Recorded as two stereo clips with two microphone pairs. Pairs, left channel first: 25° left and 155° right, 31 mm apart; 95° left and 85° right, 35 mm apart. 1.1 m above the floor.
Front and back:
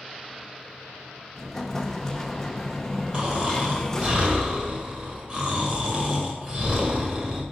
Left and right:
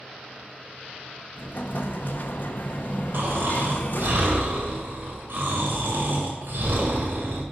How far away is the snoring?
About 1.9 m.